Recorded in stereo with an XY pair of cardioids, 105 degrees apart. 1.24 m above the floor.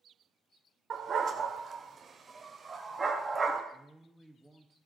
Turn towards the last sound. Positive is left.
turn(degrees=-5)